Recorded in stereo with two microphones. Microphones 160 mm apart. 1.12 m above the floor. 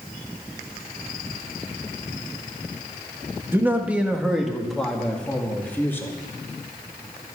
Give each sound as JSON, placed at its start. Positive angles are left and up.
{"t": 3.5, "sound": "a man speaking", "side_deg": -15, "distance_m": 1.8}